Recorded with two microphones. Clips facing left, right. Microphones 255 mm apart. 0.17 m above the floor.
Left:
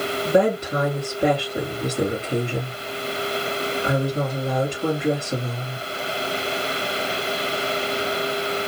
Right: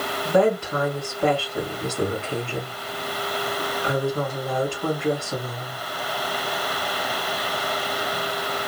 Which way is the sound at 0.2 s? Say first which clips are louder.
Even; 20° left (ahead or behind).